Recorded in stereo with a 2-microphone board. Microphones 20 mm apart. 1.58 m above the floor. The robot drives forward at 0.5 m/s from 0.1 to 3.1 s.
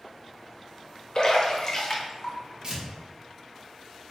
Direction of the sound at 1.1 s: 45° left (ahead or behind).